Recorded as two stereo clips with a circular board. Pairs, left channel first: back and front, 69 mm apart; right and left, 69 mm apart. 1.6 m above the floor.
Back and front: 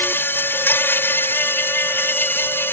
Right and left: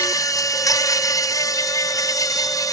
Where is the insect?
120° right.